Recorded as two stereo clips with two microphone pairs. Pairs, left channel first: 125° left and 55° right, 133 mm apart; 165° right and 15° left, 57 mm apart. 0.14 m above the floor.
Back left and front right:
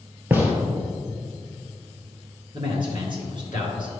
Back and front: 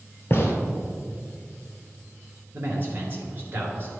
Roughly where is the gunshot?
Behind right.